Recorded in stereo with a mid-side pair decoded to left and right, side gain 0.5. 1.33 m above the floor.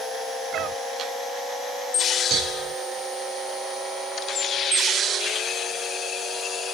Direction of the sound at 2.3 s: 65° right.